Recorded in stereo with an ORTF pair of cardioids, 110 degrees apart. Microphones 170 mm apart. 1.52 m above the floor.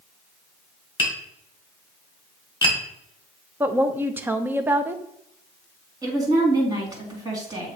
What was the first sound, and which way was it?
Tapping, 30° left.